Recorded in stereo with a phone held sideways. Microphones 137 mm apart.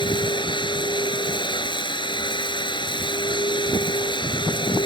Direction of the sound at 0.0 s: 35° left (ahead or behind).